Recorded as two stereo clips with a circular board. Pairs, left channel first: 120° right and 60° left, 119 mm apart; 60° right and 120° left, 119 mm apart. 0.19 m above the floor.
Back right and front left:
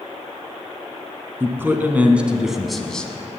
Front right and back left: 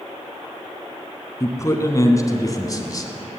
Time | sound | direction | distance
1.4 | a man speaking | 5° right | 1.7 m